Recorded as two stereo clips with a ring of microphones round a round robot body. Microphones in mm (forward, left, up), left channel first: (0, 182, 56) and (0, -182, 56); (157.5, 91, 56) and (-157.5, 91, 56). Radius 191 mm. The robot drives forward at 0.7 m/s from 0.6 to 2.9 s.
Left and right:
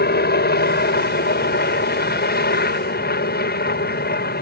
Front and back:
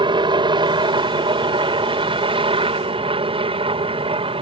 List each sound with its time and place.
0.0 s a helicopter: 120° left; by 4.4 s 125° left